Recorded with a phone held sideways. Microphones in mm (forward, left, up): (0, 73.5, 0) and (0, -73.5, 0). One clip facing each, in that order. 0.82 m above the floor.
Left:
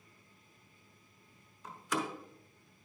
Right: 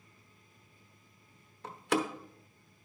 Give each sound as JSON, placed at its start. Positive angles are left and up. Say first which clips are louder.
{"t": 1.6, "sound": "a door slam", "louder": "right 5 dB", "side_deg": -75, "distance_m": 0.9}